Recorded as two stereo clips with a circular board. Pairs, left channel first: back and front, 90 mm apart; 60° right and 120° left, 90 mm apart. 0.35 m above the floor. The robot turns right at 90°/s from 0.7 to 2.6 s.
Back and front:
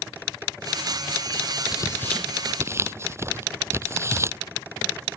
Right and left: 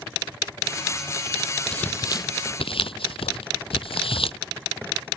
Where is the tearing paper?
140° right; by 5.2 s 60° right.